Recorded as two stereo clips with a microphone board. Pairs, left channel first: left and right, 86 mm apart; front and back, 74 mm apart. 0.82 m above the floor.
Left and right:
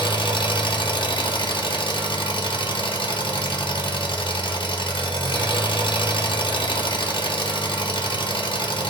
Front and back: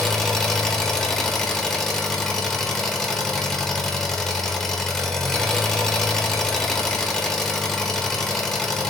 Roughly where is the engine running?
Left.